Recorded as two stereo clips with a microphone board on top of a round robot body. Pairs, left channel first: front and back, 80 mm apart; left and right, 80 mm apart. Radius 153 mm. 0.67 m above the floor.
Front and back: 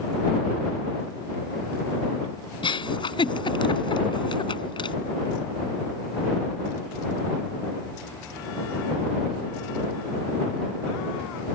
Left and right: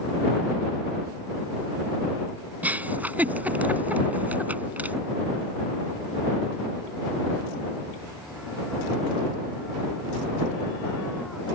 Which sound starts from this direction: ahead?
A giggle, at 2.6 s.